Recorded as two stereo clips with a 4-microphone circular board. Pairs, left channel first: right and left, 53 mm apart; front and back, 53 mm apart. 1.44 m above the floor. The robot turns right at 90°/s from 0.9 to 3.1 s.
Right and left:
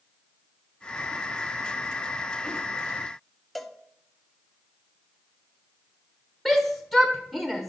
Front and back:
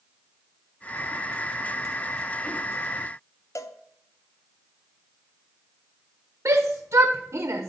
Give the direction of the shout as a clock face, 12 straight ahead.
6 o'clock.